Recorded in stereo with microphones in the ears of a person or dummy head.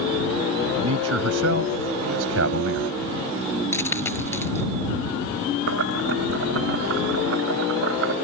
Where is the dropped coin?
15° left (ahead or behind).